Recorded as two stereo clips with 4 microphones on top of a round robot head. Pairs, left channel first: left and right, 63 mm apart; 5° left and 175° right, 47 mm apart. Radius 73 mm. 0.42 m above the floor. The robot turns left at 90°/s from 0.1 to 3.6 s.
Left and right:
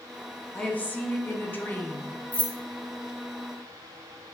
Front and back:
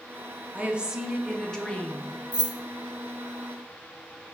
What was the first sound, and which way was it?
A woman speaking, 160° left.